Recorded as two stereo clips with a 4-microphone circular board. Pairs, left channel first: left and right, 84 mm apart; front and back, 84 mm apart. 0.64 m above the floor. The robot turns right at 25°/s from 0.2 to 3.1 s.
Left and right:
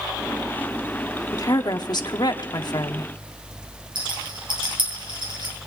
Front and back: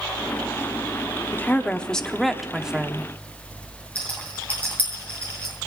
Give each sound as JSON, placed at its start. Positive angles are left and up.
{"t": 1.3, "sound": "a woman speaking", "azimuth_deg": 65, "distance_m": 0.9}
{"t": 4.0, "sound": "a rattle", "azimuth_deg": -75, "distance_m": 6.0}